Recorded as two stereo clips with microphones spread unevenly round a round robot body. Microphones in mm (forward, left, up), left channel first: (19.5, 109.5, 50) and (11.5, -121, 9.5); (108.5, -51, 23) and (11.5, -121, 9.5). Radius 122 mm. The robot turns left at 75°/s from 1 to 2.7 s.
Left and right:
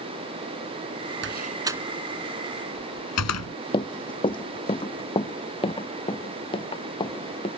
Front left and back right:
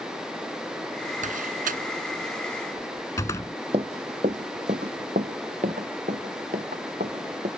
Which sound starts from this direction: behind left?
Running footsteps, at 3.7 s.